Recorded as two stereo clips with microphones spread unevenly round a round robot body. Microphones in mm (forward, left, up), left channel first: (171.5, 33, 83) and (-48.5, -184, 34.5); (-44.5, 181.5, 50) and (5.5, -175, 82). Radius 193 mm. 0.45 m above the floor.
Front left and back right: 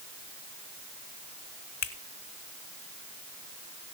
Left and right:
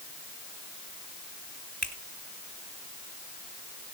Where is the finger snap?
10° left, 2.5 m.